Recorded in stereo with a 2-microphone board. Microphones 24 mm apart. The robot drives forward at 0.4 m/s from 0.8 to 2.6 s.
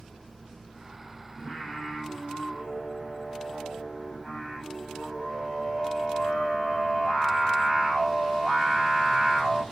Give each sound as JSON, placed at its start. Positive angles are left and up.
{"t": 1.4, "sound": "singing", "side_deg": -35, "distance_m": 1.5}